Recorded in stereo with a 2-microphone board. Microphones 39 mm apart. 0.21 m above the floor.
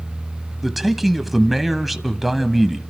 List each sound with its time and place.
0.6 s a man speaking: 5° right (ahead or behind), 1.1 m